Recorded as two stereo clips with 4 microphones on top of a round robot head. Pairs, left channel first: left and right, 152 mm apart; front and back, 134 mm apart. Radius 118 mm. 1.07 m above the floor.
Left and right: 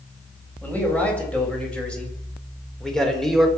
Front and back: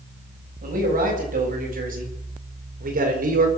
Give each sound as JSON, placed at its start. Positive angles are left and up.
{"t": 0.6, "sound": "a man speaking", "azimuth_deg": 170, "distance_m": 8.0}